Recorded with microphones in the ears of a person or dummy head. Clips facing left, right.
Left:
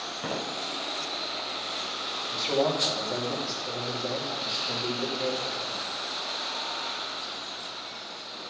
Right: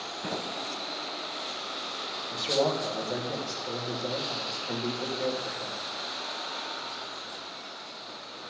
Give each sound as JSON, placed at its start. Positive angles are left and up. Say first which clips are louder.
{"t": 0.2, "sound": "footsteps", "louder": "left 2 dB", "side_deg": 50, "distance_m": 4.5}
{"t": 2.3, "sound": "a man speaking", "louder": "left 1 dB", "side_deg": -10, "distance_m": 2.0}